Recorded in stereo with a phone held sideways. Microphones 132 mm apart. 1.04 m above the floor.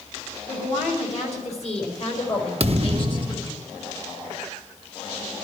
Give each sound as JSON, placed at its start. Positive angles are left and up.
{"t": 0.5, "sound": "a woman speaking", "side_deg": 65, "distance_m": 5.0}
{"t": 2.6, "sound": "a thud", "side_deg": -50, "distance_m": 0.7}